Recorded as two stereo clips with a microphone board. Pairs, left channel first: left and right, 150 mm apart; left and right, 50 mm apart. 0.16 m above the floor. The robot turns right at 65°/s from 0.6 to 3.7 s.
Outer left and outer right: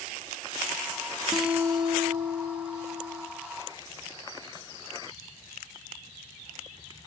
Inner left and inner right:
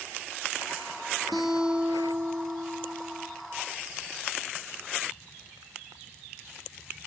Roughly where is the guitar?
Behind.